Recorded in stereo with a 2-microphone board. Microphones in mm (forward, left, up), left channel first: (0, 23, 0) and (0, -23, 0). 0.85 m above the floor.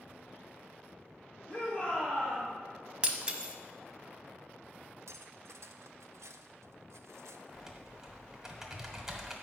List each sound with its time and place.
1.5 s a shout: 30° left (ahead or behind), 1.5 m
3.0 s breaking glass: 25° right (ahead or behind), 0.7 m
5.1 s cutlery clinking: 85° right, 0.5 m
7.5 s typing on a keyboard: 10° right (ahead or behind), 1.1 m